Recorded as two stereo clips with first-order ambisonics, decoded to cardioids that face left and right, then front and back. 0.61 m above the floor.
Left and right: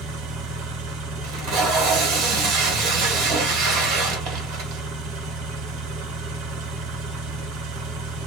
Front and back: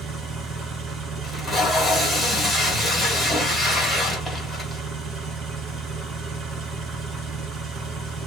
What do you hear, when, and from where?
0.0 s an engine running: 120° right, 1.0 m
1.2 s tape being pulled: 85° right, 1.4 m